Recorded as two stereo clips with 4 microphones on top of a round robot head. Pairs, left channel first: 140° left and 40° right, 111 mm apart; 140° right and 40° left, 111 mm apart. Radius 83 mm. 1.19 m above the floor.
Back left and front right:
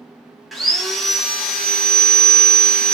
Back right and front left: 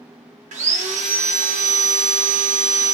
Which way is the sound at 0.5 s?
50° left.